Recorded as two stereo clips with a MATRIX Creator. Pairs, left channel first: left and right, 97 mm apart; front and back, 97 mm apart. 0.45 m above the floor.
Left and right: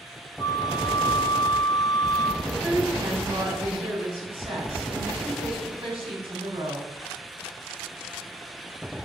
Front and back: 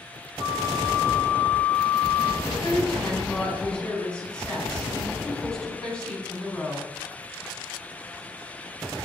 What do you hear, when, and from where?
0.4 s a flute: 115° left, 1.5 m
2.4 s a woman speaking: 80° right, 4 m